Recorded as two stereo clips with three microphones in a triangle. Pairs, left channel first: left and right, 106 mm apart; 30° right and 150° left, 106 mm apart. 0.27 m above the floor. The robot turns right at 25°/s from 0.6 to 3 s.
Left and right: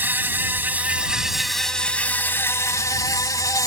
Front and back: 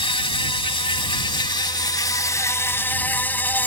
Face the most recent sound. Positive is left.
turn(degrees=40)